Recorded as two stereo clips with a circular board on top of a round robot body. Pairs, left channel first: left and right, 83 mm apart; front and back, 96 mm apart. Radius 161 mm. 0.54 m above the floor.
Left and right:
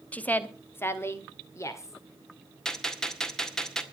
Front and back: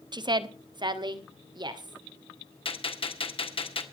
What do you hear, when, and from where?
0.1 s a woman speaking: 160° left, 1.3 m; by 2.0 s 145° left, 2.5 m
2.6 s a gunshot: 10° left, 2.5 m